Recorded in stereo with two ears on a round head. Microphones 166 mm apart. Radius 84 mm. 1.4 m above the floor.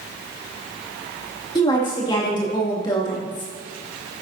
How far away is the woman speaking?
About 2.5 m.